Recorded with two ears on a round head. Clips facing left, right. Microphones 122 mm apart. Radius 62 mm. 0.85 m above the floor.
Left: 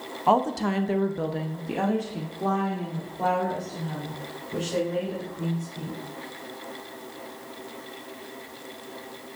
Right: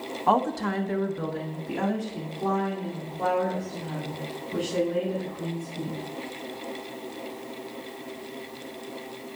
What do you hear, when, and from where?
0.3 s a woman speaking: 10° left (ahead or behind), 1.0 m; by 6.0 s 20° left (ahead or behind), 4.5 m